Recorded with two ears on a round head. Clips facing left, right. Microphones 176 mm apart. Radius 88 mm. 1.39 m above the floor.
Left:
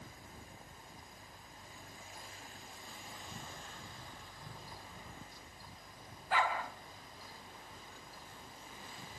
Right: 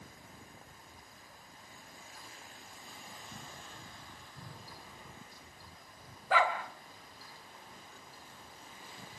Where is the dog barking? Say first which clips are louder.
Right 4 dB; 65° right (ahead or behind), 3 m.